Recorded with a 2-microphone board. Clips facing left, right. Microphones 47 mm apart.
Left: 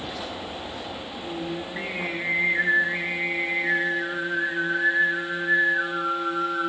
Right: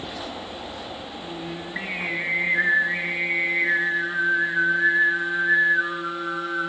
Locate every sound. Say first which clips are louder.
1.2 s singing: left 4 dB; 35° right (ahead or behind), 6.5 m